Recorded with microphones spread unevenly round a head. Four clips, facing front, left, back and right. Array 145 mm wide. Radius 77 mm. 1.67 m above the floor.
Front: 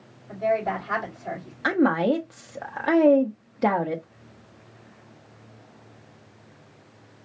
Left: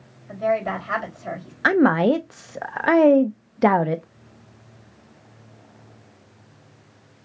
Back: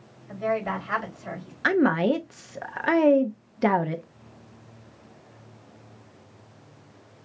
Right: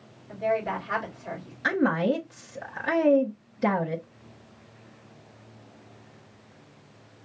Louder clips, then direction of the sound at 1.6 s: Left 7 dB, even; 85° left.